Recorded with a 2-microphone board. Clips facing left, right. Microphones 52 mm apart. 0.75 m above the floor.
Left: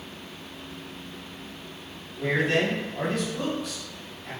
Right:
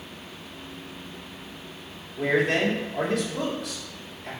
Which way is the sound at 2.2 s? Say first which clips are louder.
Right 1 dB; 75° right (ahead or behind).